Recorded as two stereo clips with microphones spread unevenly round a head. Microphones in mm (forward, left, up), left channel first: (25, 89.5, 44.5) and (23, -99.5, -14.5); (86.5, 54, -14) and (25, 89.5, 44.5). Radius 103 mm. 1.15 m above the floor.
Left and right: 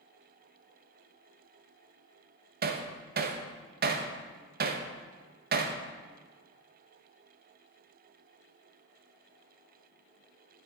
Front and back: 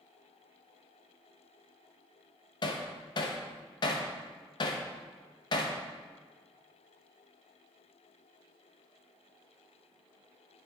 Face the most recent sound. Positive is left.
turn(degrees=-50)